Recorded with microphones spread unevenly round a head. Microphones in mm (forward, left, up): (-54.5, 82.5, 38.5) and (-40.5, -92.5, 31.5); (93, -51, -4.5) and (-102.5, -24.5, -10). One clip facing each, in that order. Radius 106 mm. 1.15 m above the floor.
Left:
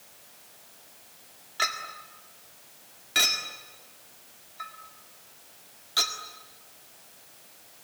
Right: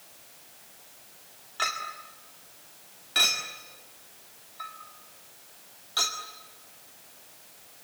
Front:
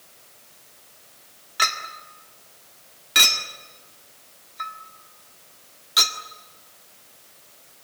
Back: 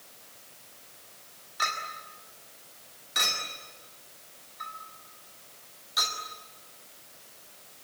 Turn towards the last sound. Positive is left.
turn(degrees=20)